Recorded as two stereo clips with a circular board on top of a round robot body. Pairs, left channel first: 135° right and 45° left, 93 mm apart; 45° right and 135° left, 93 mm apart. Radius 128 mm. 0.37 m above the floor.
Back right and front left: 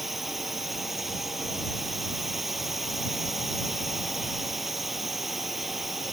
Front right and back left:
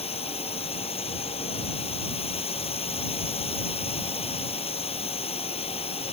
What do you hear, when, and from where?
0.0 s a drone: 45° right